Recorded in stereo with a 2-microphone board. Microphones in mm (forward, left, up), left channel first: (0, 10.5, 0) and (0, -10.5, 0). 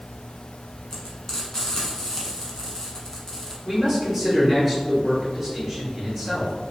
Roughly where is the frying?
Left.